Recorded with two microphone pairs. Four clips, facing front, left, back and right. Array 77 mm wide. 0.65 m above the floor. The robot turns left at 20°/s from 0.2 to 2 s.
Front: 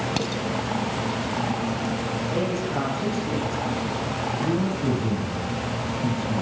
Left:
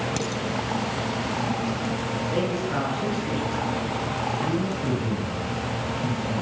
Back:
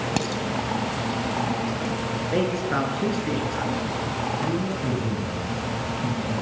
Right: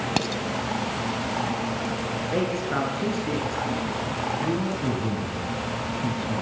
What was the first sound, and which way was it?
Dishes clattering, 110° right.